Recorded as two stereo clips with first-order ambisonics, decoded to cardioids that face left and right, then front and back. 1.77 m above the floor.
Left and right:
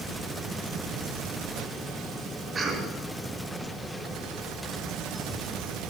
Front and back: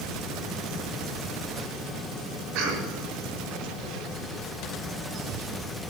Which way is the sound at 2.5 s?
160° right.